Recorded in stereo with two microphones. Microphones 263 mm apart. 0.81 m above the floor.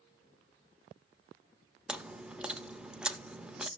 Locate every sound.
1.9 s chewing: 5° right (ahead or behind), 0.6 m